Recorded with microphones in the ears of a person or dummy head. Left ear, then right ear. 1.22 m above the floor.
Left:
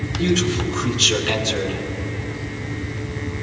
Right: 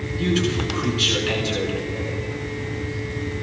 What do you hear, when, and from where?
0.2 s a man speaking: centre (ahead or behind), 5 m